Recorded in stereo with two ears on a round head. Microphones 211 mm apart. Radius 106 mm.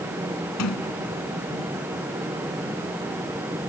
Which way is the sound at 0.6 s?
75° left (ahead or behind).